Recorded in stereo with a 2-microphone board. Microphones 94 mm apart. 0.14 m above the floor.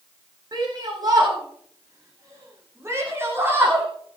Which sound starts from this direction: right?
A shout, at 0.5 s.